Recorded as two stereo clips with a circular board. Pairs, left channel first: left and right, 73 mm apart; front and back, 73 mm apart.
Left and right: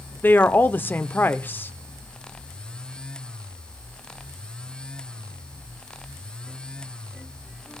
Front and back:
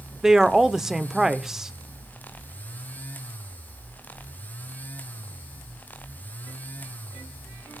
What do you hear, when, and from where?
0.2 s a woman speaking: 100° left, 0.8 m